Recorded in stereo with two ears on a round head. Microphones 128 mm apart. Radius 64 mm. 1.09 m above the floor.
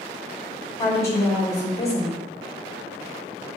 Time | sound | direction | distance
0.8 | a woman speaking | 20° left (ahead or behind) | 2.5 m